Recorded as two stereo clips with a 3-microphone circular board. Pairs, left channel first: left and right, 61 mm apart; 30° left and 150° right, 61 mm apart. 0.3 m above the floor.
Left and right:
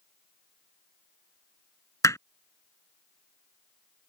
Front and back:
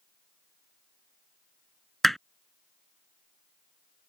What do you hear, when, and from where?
2.0 s hammering: 115° left